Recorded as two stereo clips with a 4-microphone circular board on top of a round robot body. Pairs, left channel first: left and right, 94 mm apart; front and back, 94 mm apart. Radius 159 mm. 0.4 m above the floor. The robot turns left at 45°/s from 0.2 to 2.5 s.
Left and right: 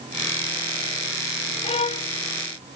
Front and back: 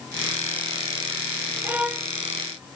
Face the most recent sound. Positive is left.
turn(degrees=70)